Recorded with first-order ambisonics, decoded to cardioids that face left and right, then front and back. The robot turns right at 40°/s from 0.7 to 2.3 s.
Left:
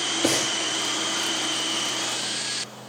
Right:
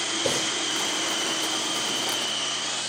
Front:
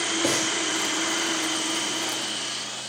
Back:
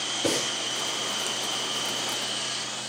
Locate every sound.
0.2 s breathing: 65° left, 3.5 m